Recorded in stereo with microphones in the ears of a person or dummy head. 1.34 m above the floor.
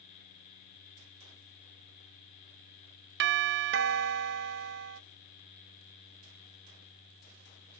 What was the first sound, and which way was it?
A doorbell, 60° right (ahead or behind).